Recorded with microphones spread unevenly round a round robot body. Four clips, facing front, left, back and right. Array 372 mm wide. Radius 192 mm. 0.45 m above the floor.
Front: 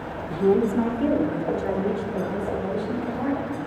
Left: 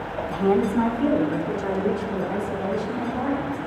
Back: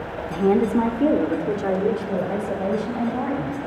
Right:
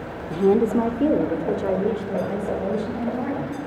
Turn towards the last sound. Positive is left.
turn(degrees=-150)